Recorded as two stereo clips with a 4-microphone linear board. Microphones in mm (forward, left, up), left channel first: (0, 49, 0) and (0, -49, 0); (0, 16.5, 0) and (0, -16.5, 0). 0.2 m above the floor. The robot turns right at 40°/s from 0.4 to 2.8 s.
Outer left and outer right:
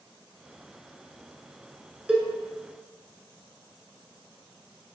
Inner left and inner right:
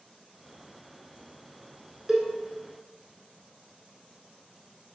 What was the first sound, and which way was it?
A cowbell, 10° right (ahead or behind).